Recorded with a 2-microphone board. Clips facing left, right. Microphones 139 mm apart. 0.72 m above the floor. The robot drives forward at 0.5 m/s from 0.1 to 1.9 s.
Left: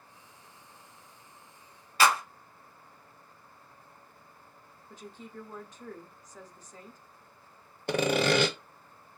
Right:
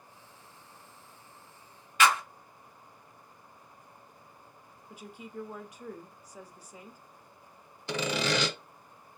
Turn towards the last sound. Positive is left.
turn(degrees=55)  # may be behind; listen again after turning